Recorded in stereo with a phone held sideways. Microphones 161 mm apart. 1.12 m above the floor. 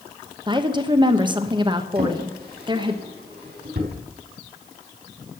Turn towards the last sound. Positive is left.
turn(degrees=-75)  # may be behind; listen again after turning